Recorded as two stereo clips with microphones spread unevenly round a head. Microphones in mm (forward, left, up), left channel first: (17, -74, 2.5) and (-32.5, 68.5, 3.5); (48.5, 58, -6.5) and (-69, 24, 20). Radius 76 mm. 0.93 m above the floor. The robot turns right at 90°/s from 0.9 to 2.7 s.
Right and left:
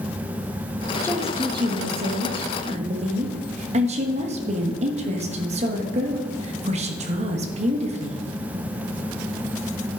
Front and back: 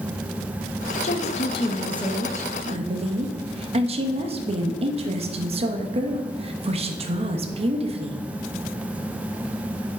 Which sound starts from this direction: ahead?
A woman speaking, at 1.0 s.